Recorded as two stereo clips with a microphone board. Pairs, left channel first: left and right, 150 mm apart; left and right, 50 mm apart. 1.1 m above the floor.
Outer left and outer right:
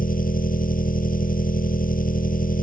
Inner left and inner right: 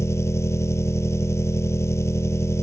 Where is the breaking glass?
I don't hear breaking glass.